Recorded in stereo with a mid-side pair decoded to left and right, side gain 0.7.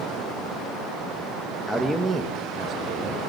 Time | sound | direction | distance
1.7 | a man speaking | 10° left | 1.6 m